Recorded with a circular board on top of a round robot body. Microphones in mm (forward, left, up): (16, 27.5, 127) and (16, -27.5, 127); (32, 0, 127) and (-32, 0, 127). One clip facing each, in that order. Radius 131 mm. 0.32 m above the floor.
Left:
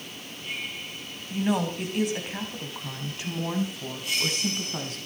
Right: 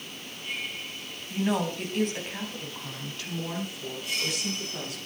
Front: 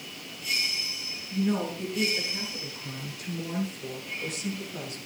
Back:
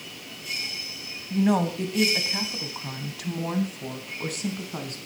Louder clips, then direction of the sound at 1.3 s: Left 1 dB, back 5 dB; straight behind.